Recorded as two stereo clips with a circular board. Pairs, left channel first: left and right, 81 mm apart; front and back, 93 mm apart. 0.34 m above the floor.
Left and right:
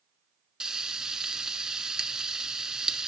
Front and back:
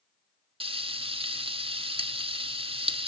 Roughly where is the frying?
Behind.